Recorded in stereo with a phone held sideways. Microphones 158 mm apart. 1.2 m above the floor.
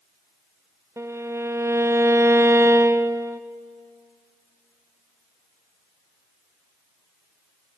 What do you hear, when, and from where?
1.0 s a violin: 20° right (ahead or behind), 0.5 m